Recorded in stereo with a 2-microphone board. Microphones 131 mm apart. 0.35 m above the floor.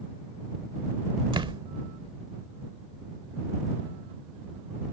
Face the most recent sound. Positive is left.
turn(degrees=-40)  # may be behind; listen again after turning